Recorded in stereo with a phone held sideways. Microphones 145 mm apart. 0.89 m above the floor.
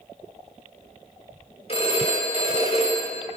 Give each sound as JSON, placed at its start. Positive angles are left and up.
{"t": 1.7, "sound": "a phone ringing", "side_deg": 45, "distance_m": 2.0}